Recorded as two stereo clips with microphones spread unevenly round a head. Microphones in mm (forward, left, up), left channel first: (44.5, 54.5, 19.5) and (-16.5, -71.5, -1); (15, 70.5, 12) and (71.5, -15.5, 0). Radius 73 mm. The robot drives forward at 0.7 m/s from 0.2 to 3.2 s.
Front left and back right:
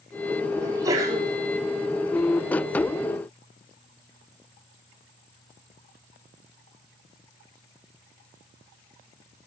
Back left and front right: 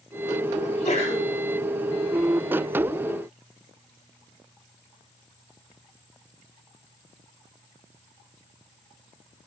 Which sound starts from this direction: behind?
A sneeze, at 0.6 s.